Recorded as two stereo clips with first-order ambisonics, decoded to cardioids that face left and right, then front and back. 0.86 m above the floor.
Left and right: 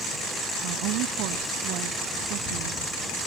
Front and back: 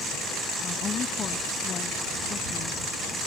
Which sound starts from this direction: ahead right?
A woman speaking, at 0.6 s.